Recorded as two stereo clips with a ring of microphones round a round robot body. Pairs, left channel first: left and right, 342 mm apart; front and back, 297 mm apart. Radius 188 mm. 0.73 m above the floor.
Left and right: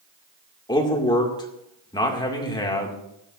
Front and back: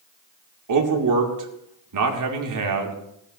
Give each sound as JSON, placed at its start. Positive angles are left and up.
{"t": 0.7, "sound": "a man speaking", "azimuth_deg": 170, "distance_m": 2.0}